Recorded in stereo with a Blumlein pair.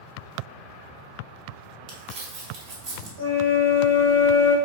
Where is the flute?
70° right, 1.4 m.